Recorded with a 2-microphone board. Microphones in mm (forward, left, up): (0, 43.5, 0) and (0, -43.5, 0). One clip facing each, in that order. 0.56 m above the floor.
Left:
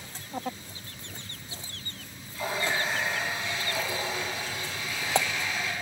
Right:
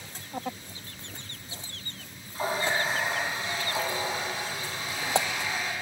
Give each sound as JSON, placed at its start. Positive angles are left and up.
{"t": 2.4, "sound": "a running tap", "side_deg": -35, "distance_m": 3.0}